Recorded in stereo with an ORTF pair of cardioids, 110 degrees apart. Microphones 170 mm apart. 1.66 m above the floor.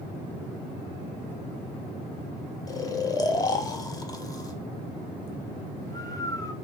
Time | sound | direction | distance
2.7 | snoring | 20° left | 0.7 m